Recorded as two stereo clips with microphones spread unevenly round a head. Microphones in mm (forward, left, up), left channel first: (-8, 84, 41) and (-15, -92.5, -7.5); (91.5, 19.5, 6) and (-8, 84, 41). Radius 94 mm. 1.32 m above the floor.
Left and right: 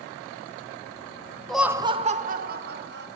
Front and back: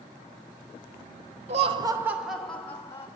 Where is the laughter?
175° right, 0.6 m; by 3.1 s 100° right, 1.4 m.